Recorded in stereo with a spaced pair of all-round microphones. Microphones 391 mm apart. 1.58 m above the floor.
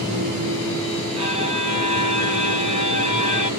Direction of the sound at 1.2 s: 50° left (ahead or behind).